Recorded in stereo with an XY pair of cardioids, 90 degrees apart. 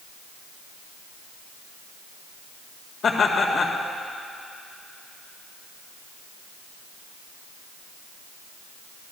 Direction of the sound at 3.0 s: 60° left.